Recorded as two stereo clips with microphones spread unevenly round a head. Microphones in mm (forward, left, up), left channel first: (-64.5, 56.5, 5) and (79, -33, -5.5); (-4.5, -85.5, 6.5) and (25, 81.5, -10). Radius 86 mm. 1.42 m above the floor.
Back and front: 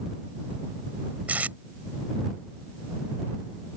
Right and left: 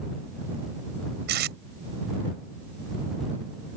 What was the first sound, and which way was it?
Tape being pulled, 50° left.